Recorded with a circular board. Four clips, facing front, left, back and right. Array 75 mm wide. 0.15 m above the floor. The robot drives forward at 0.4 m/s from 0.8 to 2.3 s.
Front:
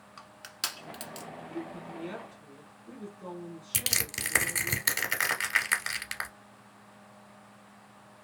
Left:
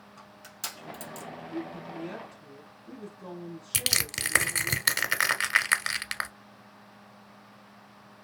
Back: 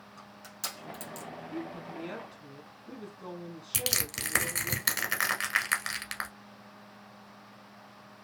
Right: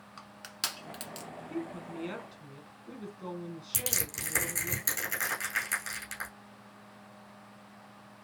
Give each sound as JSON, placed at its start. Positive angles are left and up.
{"t": 0.2, "sound": "crushing", "azimuth_deg": -40, "distance_m": 1.0}
{"t": 1.5, "sound": "a woman speaking", "azimuth_deg": -85, "distance_m": 1.1}
{"t": 3.7, "sound": "crushing", "azimuth_deg": 95, "distance_m": 0.8}